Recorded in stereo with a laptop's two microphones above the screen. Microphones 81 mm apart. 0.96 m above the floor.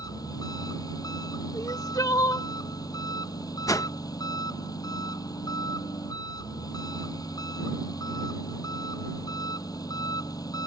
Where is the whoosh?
50° left (ahead or behind).